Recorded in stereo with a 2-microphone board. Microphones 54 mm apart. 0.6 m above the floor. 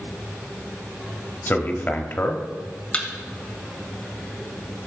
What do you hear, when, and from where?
1.5 s a man speaking: 35° left (ahead or behind), 1.2 m
2.9 s a thud: 20° left (ahead or behind), 1.7 m